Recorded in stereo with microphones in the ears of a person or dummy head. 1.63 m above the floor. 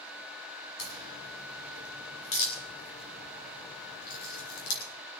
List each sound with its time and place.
0.8 s a crack: 85° left, 6.5 m